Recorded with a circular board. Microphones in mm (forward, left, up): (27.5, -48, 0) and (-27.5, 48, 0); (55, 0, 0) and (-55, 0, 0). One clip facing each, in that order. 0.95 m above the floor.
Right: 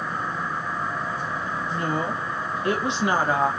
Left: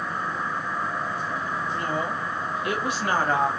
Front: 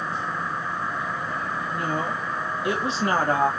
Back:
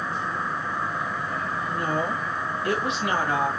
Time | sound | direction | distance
1.7 | a woman speaking | 110° right | 1.4 m